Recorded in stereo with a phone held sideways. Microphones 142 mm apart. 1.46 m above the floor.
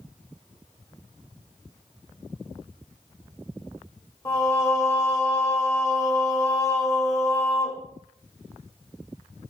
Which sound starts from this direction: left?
Singing, at 4.2 s.